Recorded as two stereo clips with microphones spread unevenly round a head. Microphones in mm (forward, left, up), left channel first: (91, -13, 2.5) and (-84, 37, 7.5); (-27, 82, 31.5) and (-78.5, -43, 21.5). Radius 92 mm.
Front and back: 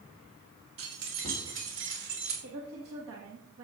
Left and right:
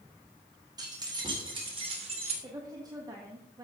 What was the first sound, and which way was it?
Keys jangling, 175° right.